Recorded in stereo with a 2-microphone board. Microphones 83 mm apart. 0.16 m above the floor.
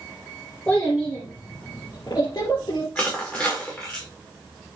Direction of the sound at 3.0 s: 10° left (ahead or behind).